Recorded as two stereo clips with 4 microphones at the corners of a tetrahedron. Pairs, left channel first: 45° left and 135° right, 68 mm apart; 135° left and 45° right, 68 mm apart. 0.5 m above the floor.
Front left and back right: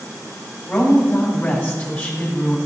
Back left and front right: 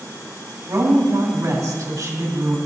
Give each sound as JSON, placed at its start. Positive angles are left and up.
{"t": 0.7, "sound": "a woman speaking", "azimuth_deg": -10, "distance_m": 3.0}